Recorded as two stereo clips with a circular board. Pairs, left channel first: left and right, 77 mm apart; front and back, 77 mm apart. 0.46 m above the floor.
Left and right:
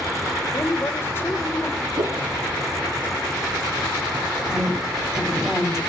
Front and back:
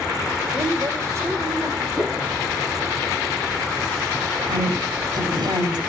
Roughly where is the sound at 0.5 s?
Behind left.